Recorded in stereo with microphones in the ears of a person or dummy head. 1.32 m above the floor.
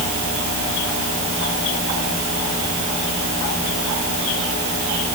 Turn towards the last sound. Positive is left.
No sound to turn to.